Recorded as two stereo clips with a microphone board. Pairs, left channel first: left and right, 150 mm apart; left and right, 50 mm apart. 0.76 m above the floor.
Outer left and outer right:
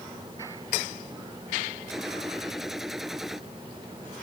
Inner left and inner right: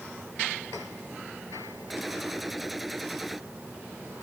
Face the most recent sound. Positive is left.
turn(degrees=0)  # may be behind; listen again after turning